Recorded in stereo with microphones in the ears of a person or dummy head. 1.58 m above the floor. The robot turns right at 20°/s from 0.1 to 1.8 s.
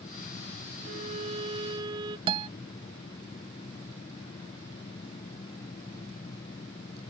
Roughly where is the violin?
Right.